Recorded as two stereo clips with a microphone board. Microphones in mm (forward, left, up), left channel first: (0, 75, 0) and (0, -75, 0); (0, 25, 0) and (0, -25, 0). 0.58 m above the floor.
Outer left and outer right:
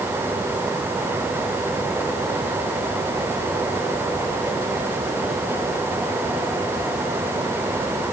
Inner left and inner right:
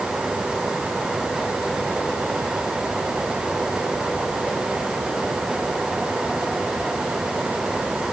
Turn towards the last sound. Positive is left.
No sound to turn to.